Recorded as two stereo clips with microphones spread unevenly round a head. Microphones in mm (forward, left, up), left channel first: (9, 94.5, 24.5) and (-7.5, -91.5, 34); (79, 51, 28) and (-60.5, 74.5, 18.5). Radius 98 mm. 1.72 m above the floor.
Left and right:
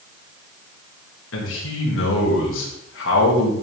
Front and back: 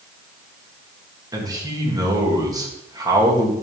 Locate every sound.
1.3 s a man speaking: 105° left, 3 m